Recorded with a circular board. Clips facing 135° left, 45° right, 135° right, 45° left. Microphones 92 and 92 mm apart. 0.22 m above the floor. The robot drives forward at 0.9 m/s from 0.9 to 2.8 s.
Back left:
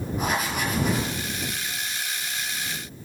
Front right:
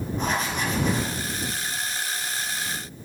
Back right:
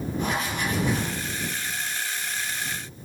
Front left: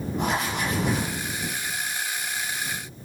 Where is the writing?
55° left, 4.5 m.